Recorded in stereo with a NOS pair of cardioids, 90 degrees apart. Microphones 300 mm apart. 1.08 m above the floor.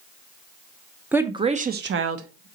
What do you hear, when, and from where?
1.1 s a woman speaking: 5° right, 0.7 m; by 2.5 s 70° right, 0.7 m